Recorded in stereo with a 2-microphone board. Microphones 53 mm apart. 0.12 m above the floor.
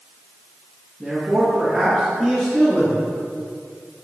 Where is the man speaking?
5° left (ahead or behind), 2.5 m; by 3.1 s 10° left (ahead or behind), 4 m.